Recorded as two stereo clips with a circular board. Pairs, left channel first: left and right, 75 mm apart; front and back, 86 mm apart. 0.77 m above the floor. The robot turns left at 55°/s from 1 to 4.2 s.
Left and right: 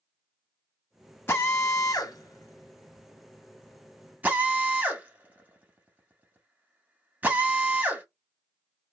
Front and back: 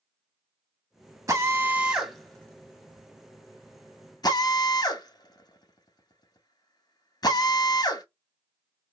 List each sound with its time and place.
1.3 s a drill: 140° left, 0.7 m; by 8.0 s 20° right, 0.7 m